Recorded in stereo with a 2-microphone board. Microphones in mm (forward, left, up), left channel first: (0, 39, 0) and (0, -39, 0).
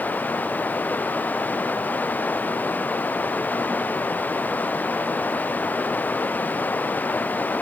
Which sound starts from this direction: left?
Running water, at 0.0 s.